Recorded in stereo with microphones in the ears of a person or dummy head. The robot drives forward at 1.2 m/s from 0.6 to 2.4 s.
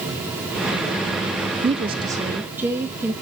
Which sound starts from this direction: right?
A woman speaking, at 1.6 s.